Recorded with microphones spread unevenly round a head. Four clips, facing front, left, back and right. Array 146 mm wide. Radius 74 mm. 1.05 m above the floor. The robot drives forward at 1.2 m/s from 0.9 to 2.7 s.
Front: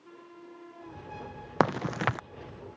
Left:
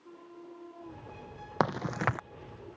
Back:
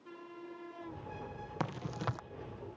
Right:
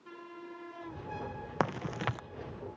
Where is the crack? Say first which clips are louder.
Left 4 dB, front 12 dB; 20° left; by 2.2 s 70° left.